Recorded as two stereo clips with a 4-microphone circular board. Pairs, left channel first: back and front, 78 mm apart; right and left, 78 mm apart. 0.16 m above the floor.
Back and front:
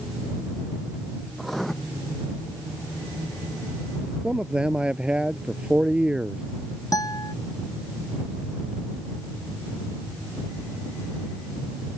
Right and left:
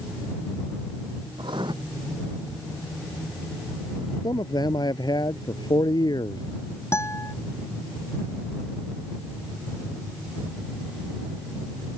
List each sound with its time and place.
1.4 s writing: 90° left
4.2 s a man speaking: 75° right
6.9 s a guitar: 145° right